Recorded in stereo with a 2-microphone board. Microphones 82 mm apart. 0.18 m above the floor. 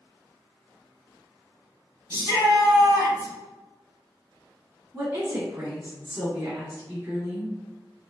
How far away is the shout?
About 1.9 m.